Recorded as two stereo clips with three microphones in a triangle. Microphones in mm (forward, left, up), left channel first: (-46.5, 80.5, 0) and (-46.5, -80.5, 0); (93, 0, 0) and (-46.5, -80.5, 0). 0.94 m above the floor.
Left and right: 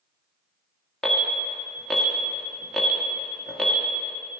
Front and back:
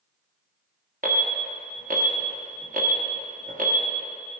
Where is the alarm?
Straight behind, 1.1 m.